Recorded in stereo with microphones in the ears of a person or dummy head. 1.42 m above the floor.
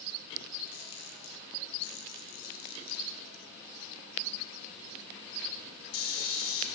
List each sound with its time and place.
0.7 s a camera shutter: 85° left, 2.5 m